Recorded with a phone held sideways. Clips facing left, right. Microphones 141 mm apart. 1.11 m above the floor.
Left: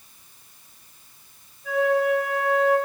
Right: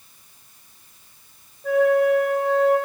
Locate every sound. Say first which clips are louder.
1.6 s a flute: right 4 dB; 55° right (ahead or behind), 2.5 m